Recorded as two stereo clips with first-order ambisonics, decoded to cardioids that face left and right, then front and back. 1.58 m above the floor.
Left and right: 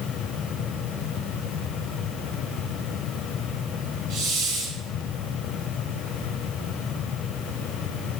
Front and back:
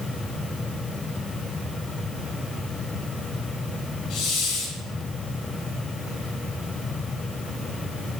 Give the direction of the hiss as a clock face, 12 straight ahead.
2 o'clock.